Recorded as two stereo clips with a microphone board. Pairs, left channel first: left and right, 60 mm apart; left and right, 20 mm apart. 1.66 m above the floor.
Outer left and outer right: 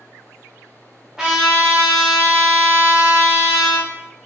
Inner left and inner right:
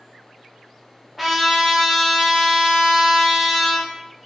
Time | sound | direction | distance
1.2 | a trumpet | 10° right (ahead or behind) | 1.5 m